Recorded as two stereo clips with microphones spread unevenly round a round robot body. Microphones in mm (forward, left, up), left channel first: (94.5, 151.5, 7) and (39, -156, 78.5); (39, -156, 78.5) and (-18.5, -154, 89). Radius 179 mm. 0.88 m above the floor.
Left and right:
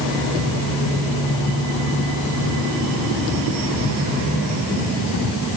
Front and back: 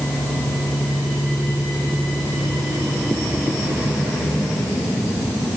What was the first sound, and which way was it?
Only background noise.